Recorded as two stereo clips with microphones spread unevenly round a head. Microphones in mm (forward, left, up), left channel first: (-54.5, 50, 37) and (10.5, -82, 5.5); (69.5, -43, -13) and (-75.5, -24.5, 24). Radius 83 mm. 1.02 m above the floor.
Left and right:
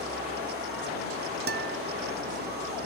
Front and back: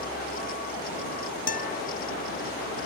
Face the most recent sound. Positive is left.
turn(degrees=-40)